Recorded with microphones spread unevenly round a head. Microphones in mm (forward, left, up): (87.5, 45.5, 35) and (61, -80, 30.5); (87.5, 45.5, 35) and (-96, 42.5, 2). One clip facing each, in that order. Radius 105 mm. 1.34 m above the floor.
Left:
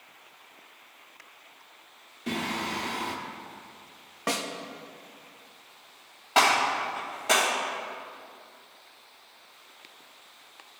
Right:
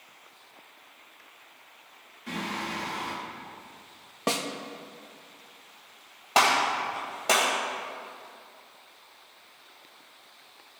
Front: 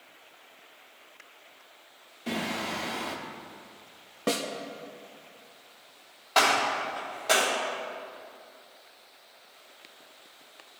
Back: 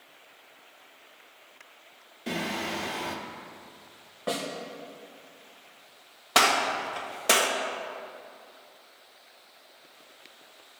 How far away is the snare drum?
About 0.8 m.